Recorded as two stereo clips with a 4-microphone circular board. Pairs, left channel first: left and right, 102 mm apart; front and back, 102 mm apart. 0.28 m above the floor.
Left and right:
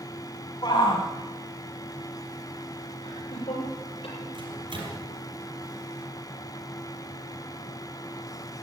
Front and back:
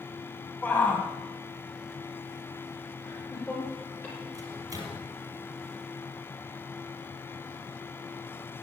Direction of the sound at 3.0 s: 70° left.